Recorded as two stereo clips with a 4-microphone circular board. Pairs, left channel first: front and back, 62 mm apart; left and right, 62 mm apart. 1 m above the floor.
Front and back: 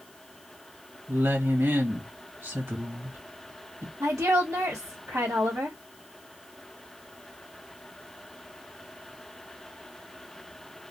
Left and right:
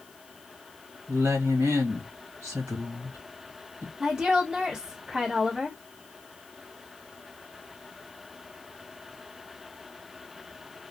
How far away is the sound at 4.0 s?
About 1.3 m.